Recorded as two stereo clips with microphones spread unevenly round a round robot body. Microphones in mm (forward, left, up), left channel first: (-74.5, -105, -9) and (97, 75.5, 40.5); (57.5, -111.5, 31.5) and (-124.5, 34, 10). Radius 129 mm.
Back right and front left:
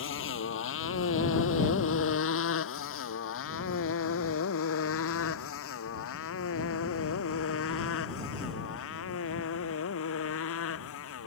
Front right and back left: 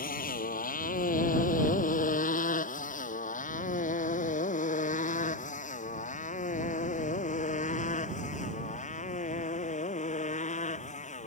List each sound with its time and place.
0.0 s a motorcycle: 90° right; by 11.3 s 100° right